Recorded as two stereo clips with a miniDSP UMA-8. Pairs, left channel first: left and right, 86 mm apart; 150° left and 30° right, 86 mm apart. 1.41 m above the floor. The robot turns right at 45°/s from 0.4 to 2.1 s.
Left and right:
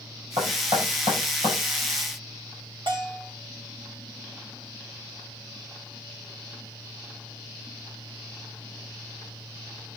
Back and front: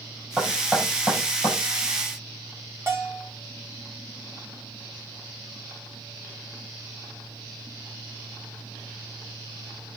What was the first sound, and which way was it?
Knocking, 125° right.